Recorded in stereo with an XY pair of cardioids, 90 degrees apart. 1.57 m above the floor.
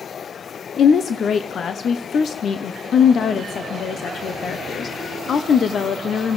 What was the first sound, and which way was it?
A woman speaking, 55° left.